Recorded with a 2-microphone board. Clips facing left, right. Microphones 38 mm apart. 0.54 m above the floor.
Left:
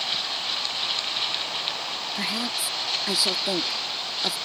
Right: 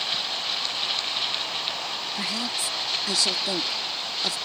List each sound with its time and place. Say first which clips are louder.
2.1 s a woman speaking: left 2 dB; 15° left (ahead or behind)